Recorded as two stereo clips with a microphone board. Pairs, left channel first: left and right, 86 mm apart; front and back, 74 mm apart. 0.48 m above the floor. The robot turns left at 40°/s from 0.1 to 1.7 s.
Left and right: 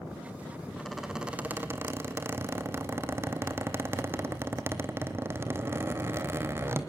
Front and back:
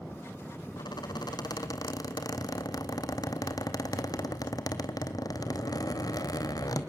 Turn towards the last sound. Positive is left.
turn(degrees=-30)